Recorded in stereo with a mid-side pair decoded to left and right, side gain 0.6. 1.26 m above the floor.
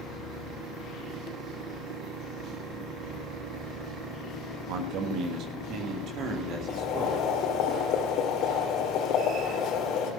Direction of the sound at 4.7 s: 70° right.